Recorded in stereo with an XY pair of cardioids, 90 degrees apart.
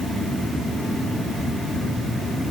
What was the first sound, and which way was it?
Only background noise.